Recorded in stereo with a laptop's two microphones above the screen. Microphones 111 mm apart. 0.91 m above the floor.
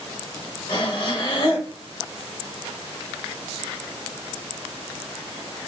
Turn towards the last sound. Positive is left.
turn(degrees=45)  # may be behind; listen again after turning